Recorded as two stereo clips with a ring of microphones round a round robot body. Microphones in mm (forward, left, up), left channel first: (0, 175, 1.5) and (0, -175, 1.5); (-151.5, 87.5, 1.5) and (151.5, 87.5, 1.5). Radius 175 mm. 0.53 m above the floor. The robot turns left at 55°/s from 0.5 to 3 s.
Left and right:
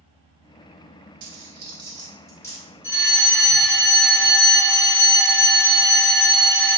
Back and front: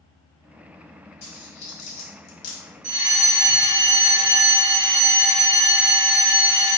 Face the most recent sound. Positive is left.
turn(degrees=-20)